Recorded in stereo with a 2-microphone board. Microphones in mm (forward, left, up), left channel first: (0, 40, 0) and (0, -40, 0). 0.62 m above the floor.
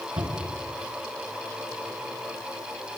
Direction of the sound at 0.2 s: 65° right (ahead or behind).